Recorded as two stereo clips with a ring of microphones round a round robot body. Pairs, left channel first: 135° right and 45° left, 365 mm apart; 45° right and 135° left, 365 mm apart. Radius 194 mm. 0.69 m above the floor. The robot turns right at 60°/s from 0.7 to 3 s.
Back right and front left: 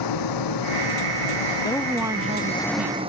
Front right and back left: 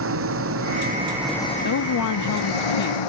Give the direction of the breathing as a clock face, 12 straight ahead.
I don't hear breathing.